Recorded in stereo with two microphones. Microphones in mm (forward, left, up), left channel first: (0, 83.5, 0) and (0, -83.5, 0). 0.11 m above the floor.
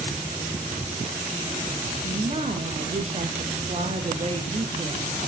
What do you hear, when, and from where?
2.0 s a woman speaking: 40° right (ahead or behind), 2 m